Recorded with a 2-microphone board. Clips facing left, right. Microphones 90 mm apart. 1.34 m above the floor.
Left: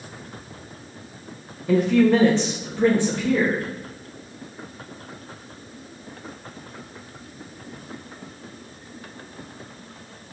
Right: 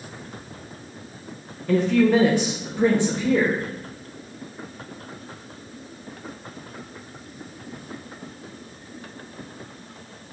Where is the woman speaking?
10° left (ahead or behind), 0.7 m; by 3.6 s 25° right (ahead or behind), 1.9 m.